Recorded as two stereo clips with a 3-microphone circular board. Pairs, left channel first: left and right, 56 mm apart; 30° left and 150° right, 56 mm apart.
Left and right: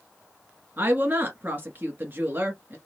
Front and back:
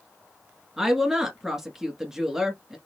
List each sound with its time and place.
0.8 s a woman speaking: 75° right, 1.3 m